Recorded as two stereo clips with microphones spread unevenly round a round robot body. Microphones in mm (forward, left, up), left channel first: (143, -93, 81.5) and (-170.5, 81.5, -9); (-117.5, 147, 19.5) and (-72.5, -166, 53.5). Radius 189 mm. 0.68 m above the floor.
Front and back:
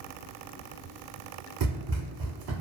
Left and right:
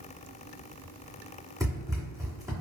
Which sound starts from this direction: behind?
Running footsteps, at 1.6 s.